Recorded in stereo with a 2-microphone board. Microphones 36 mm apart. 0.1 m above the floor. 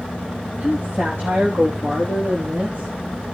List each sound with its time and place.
0.6 s a woman speaking: 55° right (ahead or behind), 4.5 m; by 2.9 s 65° right (ahead or behind), 6 m